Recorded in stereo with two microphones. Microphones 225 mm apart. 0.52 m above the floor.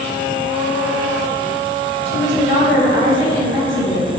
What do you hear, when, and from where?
2.0 s a woman speaking: 55° left (ahead or behind), 2 m